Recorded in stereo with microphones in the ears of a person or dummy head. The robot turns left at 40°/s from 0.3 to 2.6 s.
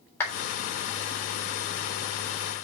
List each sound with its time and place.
0.2 s a clap: 15° left (ahead or behind), 3.5 m